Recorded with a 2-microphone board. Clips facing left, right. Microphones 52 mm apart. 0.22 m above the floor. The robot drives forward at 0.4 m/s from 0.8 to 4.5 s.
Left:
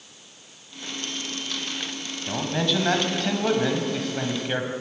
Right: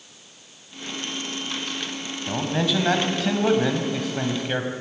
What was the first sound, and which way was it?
A man speaking, 5° right (ahead or behind).